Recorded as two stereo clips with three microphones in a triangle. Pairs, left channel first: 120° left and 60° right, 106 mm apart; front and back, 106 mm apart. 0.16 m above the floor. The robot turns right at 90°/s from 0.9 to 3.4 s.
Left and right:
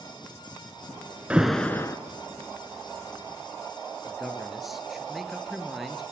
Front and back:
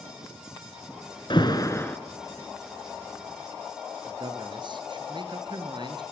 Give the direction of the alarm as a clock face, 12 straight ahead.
12 o'clock.